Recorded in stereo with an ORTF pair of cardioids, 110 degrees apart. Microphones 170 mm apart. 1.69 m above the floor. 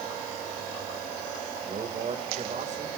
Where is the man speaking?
40° right, 2.5 m.